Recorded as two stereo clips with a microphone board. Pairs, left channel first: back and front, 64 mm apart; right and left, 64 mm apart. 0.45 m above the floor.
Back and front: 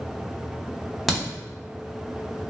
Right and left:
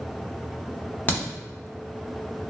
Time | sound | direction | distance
1.1 | a crack | 85° right | 1.1 m